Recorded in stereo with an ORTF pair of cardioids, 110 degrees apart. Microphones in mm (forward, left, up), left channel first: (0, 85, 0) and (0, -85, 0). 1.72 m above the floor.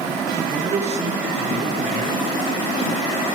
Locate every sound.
0.5 s a man speaking: 45° right, 2 m